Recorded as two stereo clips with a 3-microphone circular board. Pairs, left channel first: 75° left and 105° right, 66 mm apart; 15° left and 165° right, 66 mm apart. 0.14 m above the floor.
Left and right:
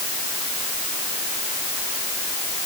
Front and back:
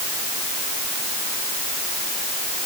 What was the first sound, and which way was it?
Only background noise.